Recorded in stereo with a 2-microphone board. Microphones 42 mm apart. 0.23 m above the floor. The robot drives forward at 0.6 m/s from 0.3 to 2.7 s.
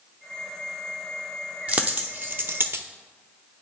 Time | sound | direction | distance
1.7 | a dropped coin | 35° right (ahead or behind) | 1.0 m